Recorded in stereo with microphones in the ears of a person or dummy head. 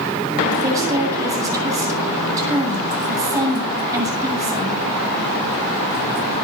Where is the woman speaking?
15° right (ahead or behind), 9.5 m.